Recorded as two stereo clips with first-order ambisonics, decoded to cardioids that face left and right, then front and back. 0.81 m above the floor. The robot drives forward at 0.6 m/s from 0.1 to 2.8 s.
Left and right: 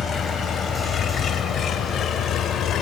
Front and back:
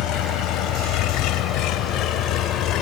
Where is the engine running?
25° left; by 2.8 s 40° left.